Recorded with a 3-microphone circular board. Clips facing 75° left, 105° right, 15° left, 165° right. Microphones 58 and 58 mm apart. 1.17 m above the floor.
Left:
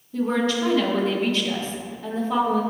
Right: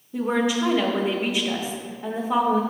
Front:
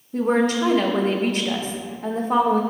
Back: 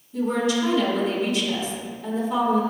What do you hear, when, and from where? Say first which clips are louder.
0.1 s a woman speaking: even, front 3 dB; 25° right, 0.9 m